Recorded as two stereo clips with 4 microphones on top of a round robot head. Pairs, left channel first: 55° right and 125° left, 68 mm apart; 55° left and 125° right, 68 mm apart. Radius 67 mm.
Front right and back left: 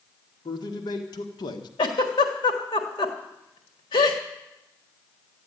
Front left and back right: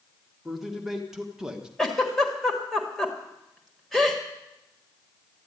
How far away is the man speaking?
About 1.9 m.